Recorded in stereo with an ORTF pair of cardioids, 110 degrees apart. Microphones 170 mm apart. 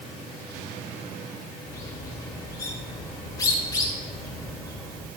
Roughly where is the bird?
Ahead.